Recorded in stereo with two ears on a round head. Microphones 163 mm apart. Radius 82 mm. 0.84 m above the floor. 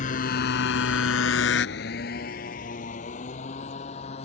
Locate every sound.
0.0 s a motorcycle: 45° left (ahead or behind); by 4.2 s 35° left (ahead or behind)